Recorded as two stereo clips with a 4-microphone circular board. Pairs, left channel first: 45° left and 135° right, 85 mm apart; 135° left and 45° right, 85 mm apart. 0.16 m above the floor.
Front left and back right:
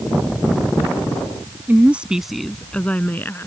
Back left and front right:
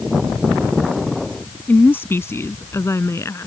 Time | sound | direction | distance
1.7 | a woman speaking | straight behind | ?